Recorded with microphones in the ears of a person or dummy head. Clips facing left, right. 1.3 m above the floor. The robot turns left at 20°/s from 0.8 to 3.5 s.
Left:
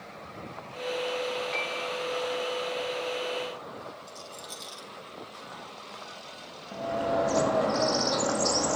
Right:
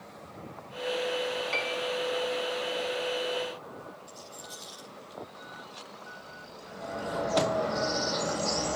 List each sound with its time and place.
1.5 s a piano: 50° right (ahead or behind), 1.6 m; by 1.9 s 55° right (ahead or behind), 1.6 m
4.1 s a rattle: 20° left (ahead or behind), 4 m
6.7 s a bird: 65° left (ahead or behind), 1.9 m